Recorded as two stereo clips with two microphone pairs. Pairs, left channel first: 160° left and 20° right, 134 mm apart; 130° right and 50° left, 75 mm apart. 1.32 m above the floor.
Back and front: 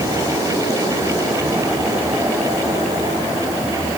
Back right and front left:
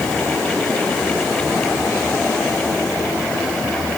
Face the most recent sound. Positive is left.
No sound to turn to.